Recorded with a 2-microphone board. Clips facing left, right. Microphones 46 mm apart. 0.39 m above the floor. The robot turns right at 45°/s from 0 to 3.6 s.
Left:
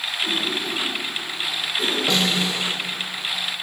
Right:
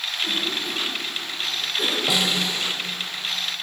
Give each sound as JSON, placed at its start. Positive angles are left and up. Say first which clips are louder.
{"t": 0.2, "sound": "a cough", "louder": "left 1 dB", "side_deg": 10, "distance_m": 1.7}
{"t": 2.1, "sound": "a snare drum", "louder": "left 1 dB", "side_deg": -10, "distance_m": 0.8}